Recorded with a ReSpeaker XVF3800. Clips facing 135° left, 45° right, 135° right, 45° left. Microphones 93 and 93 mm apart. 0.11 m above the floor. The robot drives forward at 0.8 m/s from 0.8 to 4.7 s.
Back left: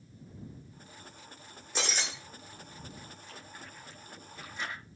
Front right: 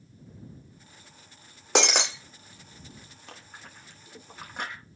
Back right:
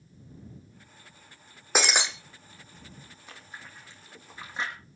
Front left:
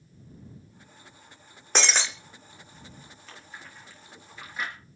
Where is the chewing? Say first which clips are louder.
Front right 4 dB, even; 60° right, 4.5 m; by 4.7 s 75° right, 4 m.